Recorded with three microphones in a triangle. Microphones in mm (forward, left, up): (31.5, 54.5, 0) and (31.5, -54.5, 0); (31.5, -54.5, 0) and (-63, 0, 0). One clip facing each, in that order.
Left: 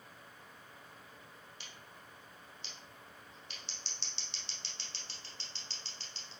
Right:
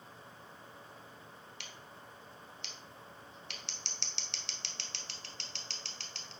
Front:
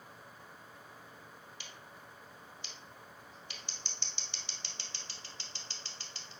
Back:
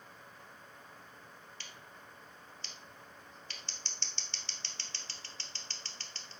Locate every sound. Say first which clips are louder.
1.6 s scissors: right 3 dB, front 1 dB; 105° right, 0.8 m